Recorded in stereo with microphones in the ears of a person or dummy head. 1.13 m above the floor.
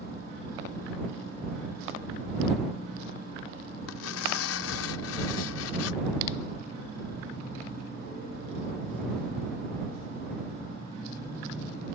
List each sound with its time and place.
3.9 s tearing paper: 70° left (ahead or behind)